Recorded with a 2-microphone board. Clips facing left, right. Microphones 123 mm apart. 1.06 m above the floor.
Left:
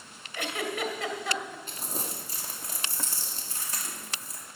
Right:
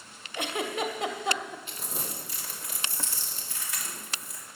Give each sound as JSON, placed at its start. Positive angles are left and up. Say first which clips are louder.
{"t": 0.3, "sound": "a giggle", "louder": "right 1 dB", "side_deg": -20, "distance_m": 1.4}
{"t": 1.7, "sound": "crumpling", "louder": "left 1 dB", "side_deg": 40, "distance_m": 2.5}